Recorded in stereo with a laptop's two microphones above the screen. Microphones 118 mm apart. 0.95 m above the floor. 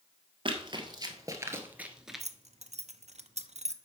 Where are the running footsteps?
45° right (ahead or behind), 1.5 m; by 2.2 s centre (ahead or behind), 1.0 m.